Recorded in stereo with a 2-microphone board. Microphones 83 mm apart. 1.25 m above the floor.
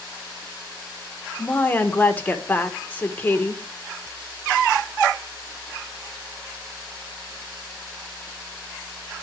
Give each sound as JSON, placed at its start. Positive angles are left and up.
{"t": 1.4, "sound": "a woman speaking", "side_deg": 20, "distance_m": 1.1}